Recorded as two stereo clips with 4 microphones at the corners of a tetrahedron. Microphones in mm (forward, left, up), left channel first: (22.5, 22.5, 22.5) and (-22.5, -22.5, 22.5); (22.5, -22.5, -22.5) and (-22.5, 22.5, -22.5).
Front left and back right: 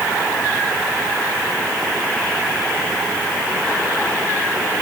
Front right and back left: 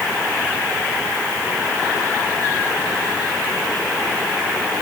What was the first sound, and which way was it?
Only background noise.